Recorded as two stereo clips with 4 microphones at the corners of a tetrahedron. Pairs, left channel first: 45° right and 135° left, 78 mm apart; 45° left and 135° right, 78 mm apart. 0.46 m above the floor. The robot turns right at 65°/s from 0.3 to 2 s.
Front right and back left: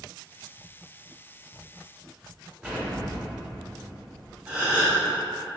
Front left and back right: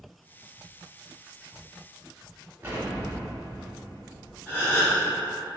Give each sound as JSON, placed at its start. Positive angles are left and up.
{"t": 2.6, "sound": "an explosion", "azimuth_deg": -160, "distance_m": 1.0}
{"t": 4.5, "sound": "a gasp", "azimuth_deg": 80, "distance_m": 1.0}